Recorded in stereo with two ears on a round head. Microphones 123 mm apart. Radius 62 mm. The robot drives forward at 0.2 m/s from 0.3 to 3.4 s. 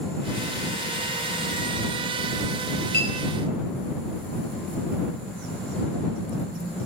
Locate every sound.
2.9 s a clink: 80° left, 1.8 m